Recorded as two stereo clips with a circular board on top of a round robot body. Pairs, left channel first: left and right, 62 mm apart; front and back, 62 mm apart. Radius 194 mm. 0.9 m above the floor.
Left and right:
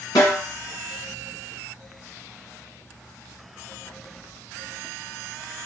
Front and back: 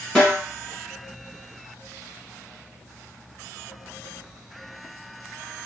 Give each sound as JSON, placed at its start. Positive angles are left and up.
{"t": 0.1, "sound": "a snare drum", "azimuth_deg": 90, "distance_m": 1.5}